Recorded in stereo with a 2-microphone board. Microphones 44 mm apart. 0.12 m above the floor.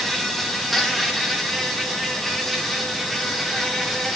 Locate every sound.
0.0 s an insect: centre (ahead or behind), 2.0 m